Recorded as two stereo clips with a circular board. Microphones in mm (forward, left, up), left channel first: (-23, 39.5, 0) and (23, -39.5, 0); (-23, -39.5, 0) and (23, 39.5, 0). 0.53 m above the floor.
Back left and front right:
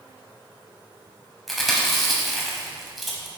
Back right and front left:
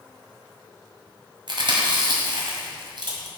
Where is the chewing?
30° left, 1.6 m.